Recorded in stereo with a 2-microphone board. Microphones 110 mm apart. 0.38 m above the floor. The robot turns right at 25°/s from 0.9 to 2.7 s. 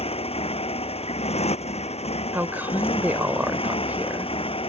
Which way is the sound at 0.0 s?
70° left.